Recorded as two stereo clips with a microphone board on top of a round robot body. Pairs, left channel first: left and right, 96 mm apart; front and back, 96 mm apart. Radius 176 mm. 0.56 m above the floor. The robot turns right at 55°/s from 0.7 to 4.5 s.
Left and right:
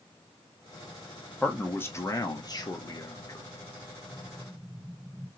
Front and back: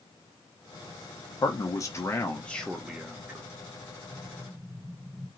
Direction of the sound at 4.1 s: 175° left.